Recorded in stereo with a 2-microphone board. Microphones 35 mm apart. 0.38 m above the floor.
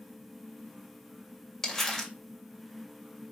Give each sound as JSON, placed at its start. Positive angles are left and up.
{"t": 1.6, "sound": "crumpling", "side_deg": 10, "distance_m": 1.6}